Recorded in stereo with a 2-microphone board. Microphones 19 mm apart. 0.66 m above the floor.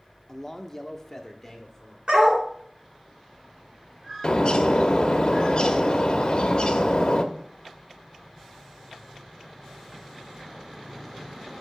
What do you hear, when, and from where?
0.3 s a man speaking: 20° left (ahead or behind), 0.7 m
2.1 s a dog barking: 60° right (ahead or behind), 2.5 m
4.2 s a bird: 45° left (ahead or behind), 0.9 m